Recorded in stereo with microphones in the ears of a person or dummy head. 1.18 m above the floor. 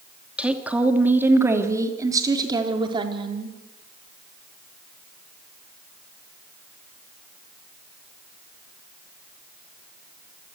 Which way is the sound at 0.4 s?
5° right (ahead or behind).